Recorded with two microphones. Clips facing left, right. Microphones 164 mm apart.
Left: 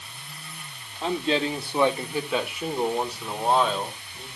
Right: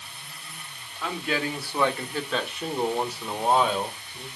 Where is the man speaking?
30° left (ahead or behind), 1.3 m; by 4.3 s 10° right (ahead or behind), 2 m.